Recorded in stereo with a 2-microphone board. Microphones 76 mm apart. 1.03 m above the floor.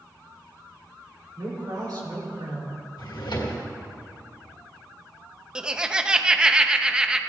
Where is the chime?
I don't hear a chime.